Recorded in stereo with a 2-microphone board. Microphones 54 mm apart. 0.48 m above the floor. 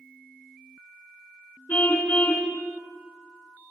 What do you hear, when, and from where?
1.7 s a car horn: 35° left (ahead or behind), 3.5 m